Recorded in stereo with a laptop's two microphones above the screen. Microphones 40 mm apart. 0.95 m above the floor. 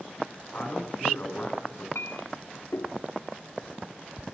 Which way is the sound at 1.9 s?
80° left.